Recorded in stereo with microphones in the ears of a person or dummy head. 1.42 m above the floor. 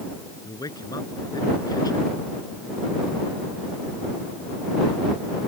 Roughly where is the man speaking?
Centre.